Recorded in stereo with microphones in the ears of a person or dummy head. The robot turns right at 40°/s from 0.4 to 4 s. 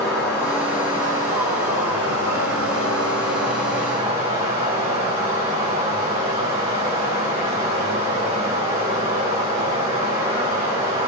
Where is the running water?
175° left, 6 m; by 11.1 s 40° right, 6 m.